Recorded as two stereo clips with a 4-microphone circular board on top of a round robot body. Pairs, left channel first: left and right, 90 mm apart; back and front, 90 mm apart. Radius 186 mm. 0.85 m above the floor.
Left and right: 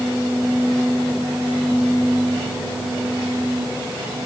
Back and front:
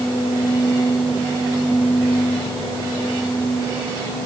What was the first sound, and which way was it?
Only background noise.